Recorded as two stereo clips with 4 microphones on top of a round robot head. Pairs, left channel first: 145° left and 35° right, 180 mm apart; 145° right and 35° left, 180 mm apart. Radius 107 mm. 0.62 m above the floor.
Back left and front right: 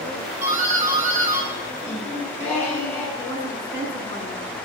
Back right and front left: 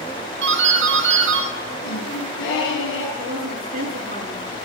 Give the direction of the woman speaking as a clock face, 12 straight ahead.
9 o'clock.